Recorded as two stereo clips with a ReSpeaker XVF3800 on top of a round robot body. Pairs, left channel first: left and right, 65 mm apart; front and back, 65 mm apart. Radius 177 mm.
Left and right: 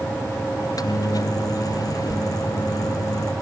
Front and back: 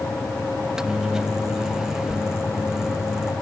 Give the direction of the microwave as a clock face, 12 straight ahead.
9 o'clock.